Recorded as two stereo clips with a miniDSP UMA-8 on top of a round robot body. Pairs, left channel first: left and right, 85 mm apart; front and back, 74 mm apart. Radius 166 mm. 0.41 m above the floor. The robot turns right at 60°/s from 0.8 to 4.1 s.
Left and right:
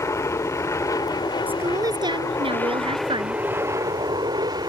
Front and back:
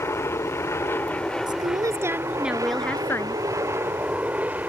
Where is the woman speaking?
160° right; by 3.4 s 45° right.